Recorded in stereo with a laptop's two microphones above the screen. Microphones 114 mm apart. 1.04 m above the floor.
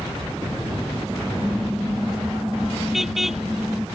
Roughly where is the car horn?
Centre.